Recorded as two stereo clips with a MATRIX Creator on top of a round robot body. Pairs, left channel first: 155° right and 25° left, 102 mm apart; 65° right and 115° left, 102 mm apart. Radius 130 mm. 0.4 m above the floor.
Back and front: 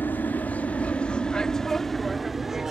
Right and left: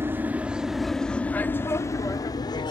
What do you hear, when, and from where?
0.0 s an aircraft: 150° left; by 2.7 s 60° right